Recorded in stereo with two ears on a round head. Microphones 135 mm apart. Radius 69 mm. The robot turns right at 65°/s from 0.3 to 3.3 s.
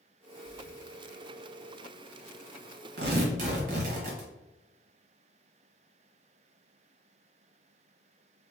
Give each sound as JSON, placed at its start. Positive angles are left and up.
{"t": 0.4, "sound": "breathing", "side_deg": -15, "distance_m": 0.6}
{"t": 3.0, "sound": "tearing paper", "side_deg": -70, "distance_m": 1.2}